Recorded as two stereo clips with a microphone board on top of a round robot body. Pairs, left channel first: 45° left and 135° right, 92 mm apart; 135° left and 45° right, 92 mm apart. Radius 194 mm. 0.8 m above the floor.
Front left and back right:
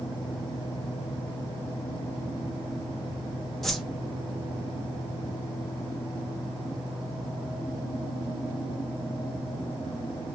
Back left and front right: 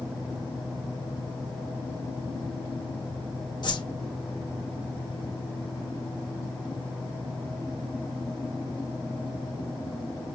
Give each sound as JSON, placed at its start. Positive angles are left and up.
{"t": 3.6, "sound": "a whoosh", "azimuth_deg": 130, "distance_m": 1.0}